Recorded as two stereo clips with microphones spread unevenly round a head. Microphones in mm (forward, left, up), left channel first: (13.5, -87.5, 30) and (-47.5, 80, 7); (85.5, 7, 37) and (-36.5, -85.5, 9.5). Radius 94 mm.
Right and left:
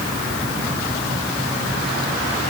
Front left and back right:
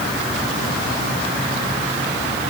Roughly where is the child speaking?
I don't hear a child speaking.